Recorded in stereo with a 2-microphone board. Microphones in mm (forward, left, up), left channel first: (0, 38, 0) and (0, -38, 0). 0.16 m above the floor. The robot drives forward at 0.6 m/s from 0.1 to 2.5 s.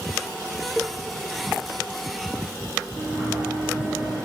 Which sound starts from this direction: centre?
A cowbell, at 0.8 s.